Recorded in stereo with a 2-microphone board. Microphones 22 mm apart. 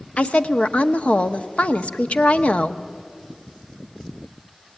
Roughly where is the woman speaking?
Left.